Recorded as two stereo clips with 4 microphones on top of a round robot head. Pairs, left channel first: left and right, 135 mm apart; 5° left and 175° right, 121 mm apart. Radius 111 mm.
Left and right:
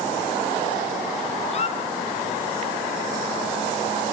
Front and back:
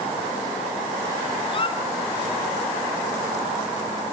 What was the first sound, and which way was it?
A squeak, 50° left.